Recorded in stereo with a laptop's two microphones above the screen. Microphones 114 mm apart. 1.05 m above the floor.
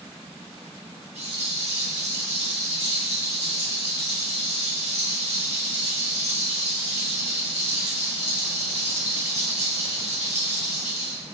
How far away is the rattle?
About 0.8 m.